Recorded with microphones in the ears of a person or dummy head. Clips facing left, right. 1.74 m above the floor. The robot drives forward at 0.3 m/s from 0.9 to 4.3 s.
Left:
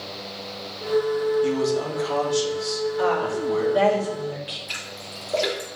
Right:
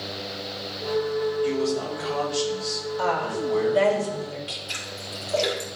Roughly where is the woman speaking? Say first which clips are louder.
Left 2 dB; centre.